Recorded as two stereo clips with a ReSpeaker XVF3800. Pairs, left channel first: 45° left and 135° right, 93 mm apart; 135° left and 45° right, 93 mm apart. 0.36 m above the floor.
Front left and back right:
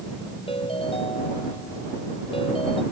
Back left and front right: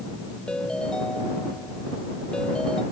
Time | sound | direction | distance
0.5 | a ringtone | 55° left | ?